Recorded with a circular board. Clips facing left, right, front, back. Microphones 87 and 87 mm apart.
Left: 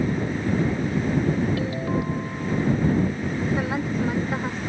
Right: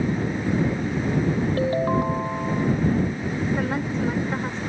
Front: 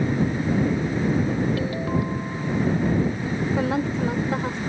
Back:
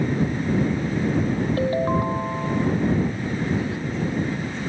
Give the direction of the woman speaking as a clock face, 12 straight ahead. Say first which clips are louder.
Even, front 3 dB; 12 o'clock.